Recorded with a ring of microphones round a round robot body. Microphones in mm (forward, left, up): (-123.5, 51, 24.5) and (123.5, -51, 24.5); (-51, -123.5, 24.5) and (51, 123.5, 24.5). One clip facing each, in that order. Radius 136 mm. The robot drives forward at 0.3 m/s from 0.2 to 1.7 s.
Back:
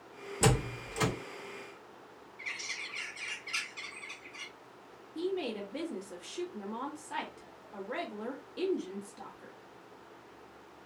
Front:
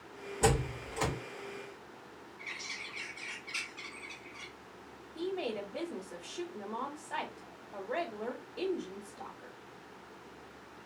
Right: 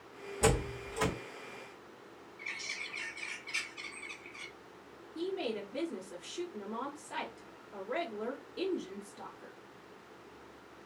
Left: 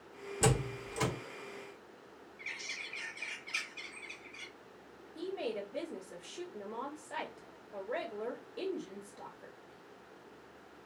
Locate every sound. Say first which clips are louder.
0.4 s a door slam: even, right 2 dB; 115° left, 1.3 m; by 1.1 s 120° left, 1.4 m
2.4 s a bird: front 1 dB, right 1 dB; 155° left, 1.4 m
5.2 s a woman speaking: back 2 dB, right 2 dB; 170° left, 1.3 m